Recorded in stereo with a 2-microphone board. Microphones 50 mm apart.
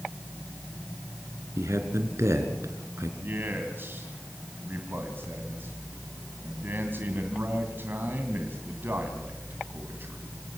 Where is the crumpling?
No crumpling in this recording.